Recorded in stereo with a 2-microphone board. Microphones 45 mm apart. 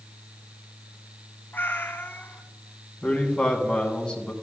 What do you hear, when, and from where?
1.5 s a cat meowing: 45° left (ahead or behind), 0.8 m
3.0 s a man speaking: 20° left (ahead or behind), 2 m